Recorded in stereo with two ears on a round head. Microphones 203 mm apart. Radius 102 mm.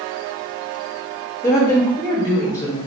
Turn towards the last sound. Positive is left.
turn(degrees=15)  # may be behind; listen again after turning